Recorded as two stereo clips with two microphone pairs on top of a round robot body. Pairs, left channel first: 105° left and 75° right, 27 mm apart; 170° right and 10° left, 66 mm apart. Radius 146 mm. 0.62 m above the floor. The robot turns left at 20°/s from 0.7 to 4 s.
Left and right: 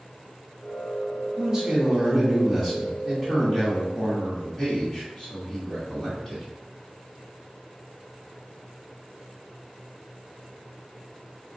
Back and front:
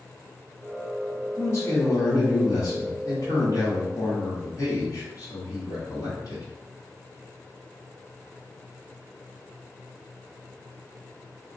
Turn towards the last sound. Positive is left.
turn(degrees=-175)